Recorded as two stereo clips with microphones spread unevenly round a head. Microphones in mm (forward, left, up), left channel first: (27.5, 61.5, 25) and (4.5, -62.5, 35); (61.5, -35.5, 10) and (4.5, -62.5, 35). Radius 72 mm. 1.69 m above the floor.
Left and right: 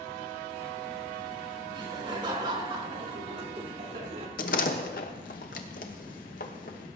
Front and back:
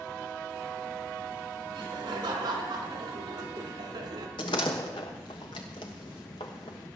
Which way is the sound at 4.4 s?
70° left.